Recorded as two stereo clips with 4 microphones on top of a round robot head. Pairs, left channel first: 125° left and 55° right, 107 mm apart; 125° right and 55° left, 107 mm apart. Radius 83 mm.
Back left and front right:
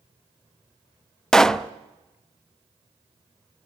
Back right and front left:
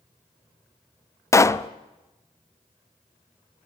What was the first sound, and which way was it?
A pop, 155° right.